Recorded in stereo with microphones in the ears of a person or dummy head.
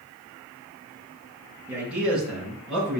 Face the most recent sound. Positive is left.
turn(degrees=0)  # may be behind; listen again after turning